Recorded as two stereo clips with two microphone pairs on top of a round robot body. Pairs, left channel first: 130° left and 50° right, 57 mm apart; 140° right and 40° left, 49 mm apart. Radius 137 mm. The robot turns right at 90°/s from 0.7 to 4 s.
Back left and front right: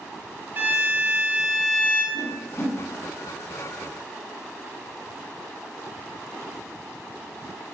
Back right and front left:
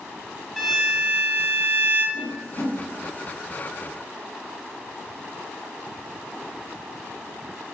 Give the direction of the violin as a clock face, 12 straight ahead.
2 o'clock.